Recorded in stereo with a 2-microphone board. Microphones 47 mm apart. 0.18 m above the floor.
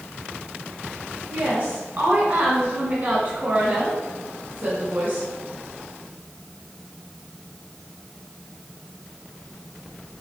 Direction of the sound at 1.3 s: 35° right (ahead or behind).